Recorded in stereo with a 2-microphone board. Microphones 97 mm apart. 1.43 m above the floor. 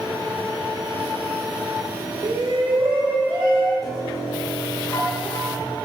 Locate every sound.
2.2 s a shout: 50° right (ahead or behind), 0.6 m; by 3.7 s 35° right (ahead or behind), 2.0 m
3.8 s a piano: 40° left (ahead or behind), 1.3 m